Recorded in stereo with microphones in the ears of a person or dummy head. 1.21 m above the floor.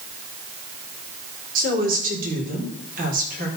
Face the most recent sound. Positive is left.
turn(degrees=-50)  # may be behind; listen again after turning